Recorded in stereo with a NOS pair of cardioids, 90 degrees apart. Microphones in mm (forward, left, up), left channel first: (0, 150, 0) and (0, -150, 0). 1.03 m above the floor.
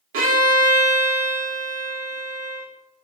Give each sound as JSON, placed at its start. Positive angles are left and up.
{"t": 0.1, "sound": "a violin", "azimuth_deg": -45, "distance_m": 1.7}